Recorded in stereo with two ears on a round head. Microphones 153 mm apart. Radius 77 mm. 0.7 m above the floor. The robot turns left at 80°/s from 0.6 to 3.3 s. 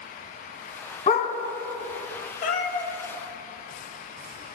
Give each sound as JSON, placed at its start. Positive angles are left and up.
{"t": 1.1, "sound": "a dog barking", "side_deg": 35, "distance_m": 1.5}
{"t": 2.4, "sound": "a cat meowing", "azimuth_deg": 45, "distance_m": 1.2}